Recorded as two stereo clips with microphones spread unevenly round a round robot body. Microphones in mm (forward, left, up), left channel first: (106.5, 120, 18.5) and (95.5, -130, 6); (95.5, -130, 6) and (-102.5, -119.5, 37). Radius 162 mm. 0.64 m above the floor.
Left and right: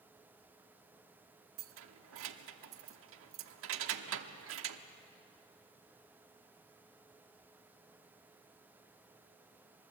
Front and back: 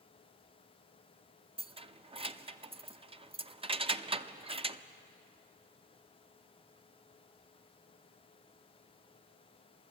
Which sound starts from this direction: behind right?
Keys jangling, at 1.6 s.